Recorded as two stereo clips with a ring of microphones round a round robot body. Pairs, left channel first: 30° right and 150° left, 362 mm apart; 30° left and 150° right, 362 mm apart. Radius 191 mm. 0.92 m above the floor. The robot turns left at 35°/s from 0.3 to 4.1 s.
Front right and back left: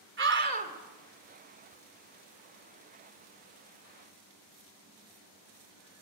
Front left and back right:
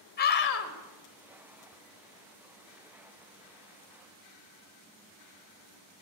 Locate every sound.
0.2 s a scream: 95° left, 3 m; by 0.7 s 75° left, 3 m